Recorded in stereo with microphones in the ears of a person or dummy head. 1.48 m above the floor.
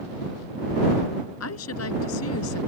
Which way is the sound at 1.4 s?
75° left (ahead or behind).